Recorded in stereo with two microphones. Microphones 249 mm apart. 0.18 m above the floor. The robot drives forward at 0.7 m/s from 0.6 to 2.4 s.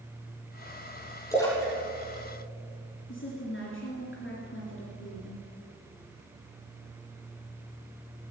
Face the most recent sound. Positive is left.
turn(degrees=50)  # may be behind; listen again after turning